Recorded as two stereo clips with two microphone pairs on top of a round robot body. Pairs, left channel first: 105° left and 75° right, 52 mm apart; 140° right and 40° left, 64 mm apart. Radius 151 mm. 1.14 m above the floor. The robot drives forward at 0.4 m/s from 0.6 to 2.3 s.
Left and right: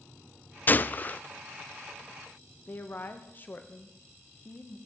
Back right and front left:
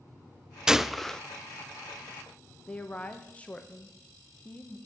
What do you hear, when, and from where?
0.7 s a gunshot: 130° left, 0.5 m; by 1.2 s 150° left, 0.7 m
2.7 s a woman speaking: 155° left, 1.8 m